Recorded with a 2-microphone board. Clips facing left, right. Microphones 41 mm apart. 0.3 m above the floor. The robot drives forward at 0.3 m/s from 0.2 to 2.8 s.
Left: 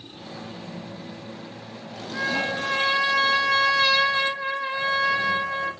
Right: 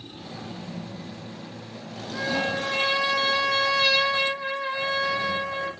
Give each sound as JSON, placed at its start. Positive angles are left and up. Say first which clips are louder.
{"t": 2.1, "sound": "a trumpet", "louder": "left 1 dB", "side_deg": 15, "distance_m": 2.5}